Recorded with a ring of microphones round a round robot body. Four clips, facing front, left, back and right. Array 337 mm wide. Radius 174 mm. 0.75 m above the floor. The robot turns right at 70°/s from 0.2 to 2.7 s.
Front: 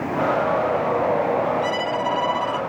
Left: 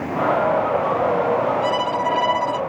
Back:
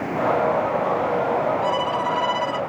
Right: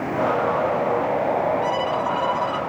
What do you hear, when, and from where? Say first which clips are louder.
1.6 s a violin: left 2 dB, back 1 dB; 50° left; by 2.6 s 115° left